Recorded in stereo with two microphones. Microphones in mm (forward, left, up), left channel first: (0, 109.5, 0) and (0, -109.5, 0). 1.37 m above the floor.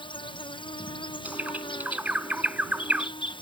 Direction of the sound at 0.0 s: 20° left (ahead or behind).